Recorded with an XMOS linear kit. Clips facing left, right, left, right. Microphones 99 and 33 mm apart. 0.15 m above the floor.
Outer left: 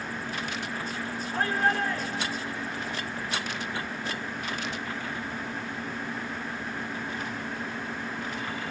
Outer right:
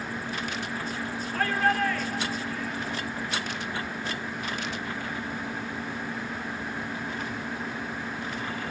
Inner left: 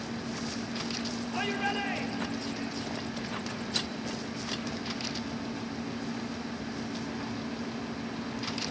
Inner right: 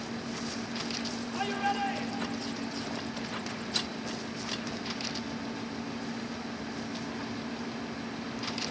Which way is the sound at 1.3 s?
25° left (ahead or behind).